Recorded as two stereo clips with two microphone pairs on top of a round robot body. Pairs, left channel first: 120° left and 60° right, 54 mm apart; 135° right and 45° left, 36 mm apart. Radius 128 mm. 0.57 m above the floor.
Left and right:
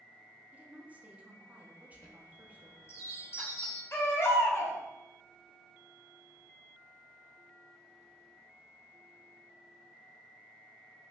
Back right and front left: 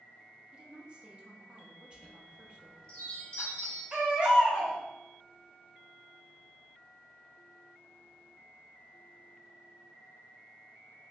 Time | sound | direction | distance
0.5 | a woman speaking | straight ahead | 1.0 m
1.9 | a chime | 165° left | 1.7 m
3.9 | a baby crying | 115° left | 1.2 m